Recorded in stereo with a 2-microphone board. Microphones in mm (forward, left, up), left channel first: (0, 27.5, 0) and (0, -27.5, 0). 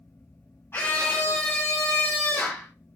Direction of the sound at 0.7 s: 45° left (ahead or behind).